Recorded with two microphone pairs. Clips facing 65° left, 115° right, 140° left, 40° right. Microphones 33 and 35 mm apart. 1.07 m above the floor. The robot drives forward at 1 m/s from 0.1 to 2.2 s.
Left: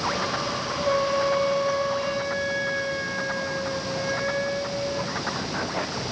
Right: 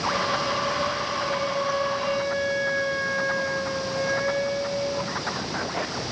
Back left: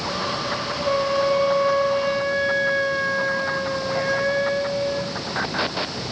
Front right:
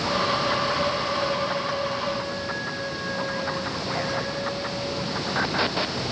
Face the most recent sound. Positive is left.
turn(degrees=160)